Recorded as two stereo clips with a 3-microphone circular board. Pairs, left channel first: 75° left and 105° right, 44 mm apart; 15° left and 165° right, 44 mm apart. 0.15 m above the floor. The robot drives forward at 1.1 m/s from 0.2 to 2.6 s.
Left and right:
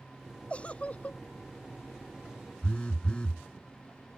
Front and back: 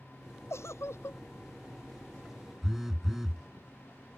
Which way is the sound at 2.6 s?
120° left.